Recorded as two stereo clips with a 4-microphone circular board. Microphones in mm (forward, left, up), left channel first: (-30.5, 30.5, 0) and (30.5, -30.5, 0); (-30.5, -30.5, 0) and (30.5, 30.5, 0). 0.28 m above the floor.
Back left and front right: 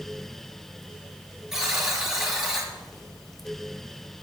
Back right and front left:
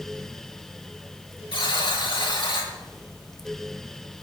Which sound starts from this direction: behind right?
A buzzer, at 1.5 s.